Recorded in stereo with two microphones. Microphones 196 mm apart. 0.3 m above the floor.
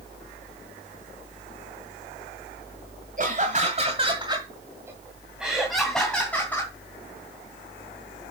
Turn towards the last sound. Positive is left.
turn(degrees=10)  # may be behind; listen again after turning